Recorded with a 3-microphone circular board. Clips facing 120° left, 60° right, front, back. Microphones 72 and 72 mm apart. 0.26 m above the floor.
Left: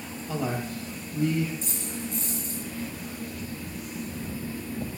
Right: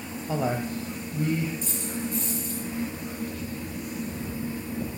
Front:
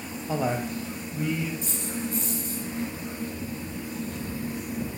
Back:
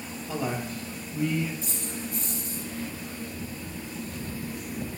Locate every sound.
0.3 s a man speaking: 25° right, 1.1 m; by 1.5 s 85° right, 1.2 m
1.6 s a dropped coin: 15° right, 4.5 m